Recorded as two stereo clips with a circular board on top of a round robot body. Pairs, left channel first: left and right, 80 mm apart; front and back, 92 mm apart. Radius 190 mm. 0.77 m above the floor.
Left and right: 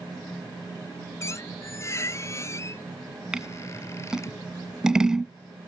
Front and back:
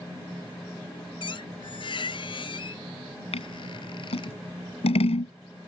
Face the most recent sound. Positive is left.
turn(degrees=-5)